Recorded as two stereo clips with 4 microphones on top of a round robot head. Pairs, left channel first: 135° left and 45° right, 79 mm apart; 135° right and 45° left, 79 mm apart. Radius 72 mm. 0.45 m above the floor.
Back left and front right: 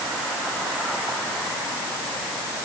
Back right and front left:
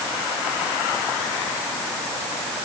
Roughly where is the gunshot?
I don't hear a gunshot.